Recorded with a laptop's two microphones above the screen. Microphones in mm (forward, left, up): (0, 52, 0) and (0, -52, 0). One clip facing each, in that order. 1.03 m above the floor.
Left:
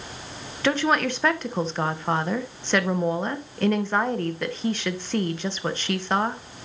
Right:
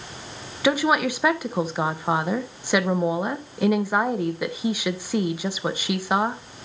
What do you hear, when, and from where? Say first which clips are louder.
0.6 s a woman speaking: right 2 dB; 10° right (ahead or behind), 0.8 m